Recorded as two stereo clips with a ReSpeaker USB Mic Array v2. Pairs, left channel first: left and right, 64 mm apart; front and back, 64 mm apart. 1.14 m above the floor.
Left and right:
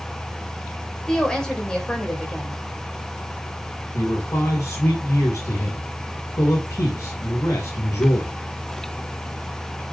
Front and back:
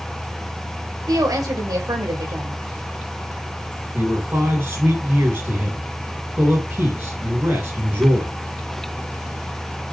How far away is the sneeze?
No sneeze in this recording.